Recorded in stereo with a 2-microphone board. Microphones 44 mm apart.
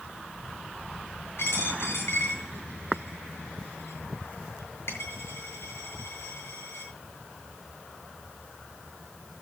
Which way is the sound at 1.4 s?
80° left.